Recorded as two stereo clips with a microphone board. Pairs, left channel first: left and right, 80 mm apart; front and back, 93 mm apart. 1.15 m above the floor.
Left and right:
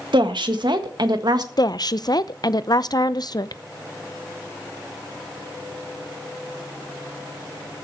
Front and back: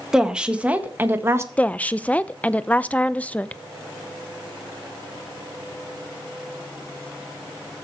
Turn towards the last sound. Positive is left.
turn(degrees=70)